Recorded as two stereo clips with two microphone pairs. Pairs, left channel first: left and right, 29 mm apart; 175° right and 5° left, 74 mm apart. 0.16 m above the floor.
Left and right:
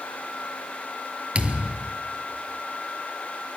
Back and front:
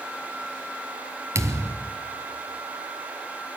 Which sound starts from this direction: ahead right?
A thud, at 1.4 s.